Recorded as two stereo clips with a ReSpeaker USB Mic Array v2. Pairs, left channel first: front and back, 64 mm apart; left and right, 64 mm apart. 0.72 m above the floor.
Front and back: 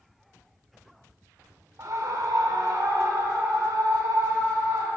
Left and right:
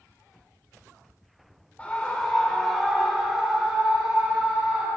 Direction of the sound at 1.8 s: 160° left.